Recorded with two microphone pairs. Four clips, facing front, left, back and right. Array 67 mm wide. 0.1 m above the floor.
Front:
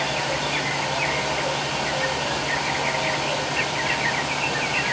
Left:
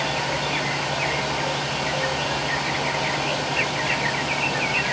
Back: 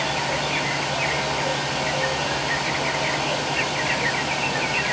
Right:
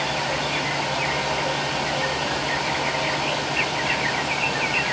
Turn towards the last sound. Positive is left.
No sound to turn to.